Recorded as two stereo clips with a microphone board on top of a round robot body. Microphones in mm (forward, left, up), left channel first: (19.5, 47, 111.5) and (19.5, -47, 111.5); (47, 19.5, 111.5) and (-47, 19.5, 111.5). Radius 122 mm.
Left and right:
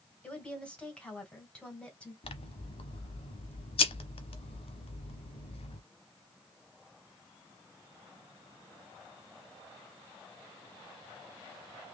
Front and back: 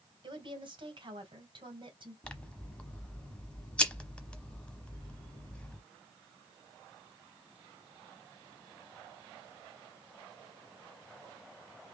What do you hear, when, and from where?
0.2 s a woman speaking: 165° left, 2.5 m
2.2 s scissors: 80° left, 0.9 m